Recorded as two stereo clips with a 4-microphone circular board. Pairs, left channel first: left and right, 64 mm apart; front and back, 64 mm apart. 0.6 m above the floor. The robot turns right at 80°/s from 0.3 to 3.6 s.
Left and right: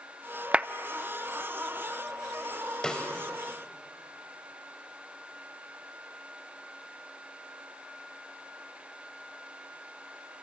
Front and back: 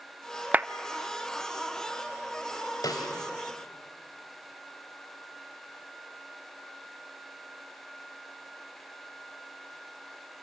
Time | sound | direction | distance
0.5 | a clap | 145° right | 0.6 m
2.8 | a snare drum | 10° left | 3 m